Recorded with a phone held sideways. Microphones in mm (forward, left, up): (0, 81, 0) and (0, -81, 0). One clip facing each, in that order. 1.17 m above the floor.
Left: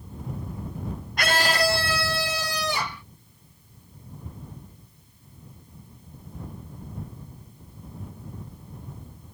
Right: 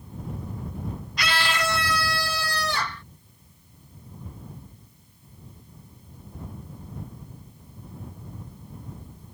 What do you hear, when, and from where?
1.2 s a scream: 50° left (ahead or behind); by 3.0 s 15° left (ahead or behind)